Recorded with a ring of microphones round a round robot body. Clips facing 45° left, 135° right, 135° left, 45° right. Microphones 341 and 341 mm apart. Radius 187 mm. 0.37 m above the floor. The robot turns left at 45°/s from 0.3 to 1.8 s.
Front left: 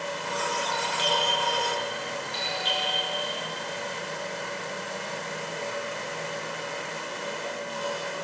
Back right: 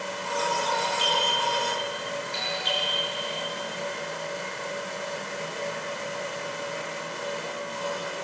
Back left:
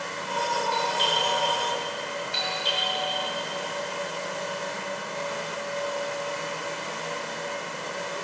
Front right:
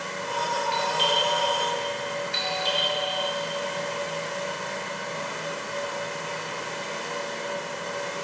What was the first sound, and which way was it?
A doorbell, 30° right.